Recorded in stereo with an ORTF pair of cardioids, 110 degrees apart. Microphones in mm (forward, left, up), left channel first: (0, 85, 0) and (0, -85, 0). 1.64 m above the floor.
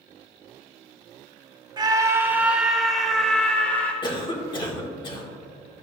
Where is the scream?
25° right, 1.2 m; by 3.9 s 10° left, 2.5 m.